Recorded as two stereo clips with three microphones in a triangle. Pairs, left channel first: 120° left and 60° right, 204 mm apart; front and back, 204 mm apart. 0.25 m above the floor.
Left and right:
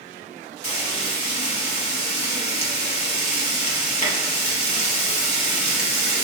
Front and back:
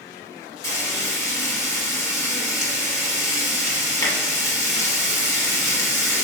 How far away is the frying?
About 0.9 m.